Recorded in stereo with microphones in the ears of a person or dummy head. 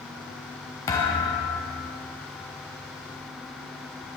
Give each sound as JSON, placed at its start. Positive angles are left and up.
{"t": 0.9, "sound": "a thud", "side_deg": 20, "distance_m": 1.2}